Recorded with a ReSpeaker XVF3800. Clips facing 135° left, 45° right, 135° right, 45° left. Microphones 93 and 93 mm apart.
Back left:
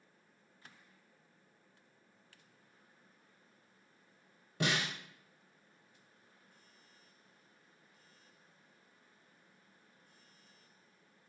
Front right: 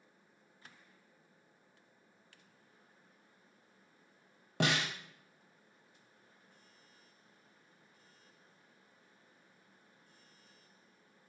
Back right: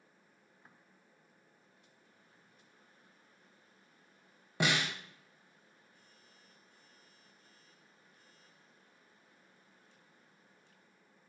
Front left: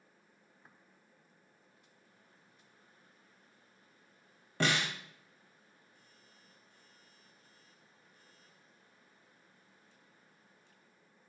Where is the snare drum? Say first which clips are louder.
Front right 2 dB, even; 55° right, 0.9 m.